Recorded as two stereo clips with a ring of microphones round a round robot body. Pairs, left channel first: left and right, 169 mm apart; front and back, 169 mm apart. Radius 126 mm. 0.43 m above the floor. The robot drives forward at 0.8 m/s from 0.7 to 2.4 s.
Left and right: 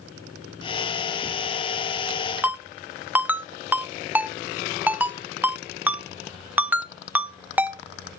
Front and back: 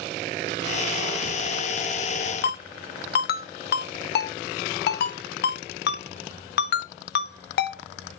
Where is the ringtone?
10° right, 0.6 m.